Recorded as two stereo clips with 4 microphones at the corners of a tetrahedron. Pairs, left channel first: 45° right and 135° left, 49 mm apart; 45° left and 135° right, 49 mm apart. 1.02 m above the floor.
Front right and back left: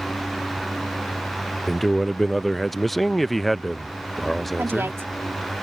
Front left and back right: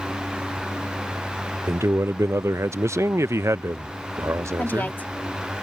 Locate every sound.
1.7 s a man speaking: 135° right
4.6 s a woman speaking: 100° left